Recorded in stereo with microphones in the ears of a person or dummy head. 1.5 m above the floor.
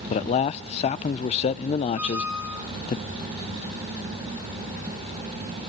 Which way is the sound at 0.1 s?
35° left (ahead or behind).